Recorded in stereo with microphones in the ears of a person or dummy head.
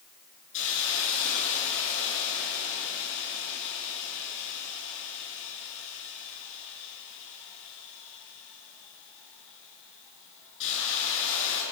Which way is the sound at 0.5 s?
70° left (ahead or behind).